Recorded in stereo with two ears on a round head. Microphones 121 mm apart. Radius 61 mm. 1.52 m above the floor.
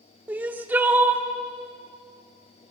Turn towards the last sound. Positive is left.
turn(degrees=-15)  # may be behind; listen again after turning